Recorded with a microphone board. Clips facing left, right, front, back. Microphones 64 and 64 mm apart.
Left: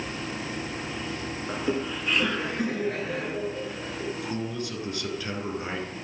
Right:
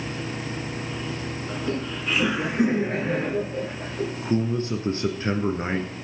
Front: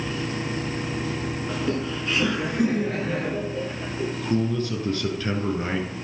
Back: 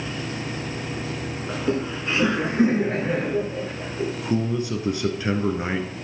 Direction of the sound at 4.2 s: 120° right.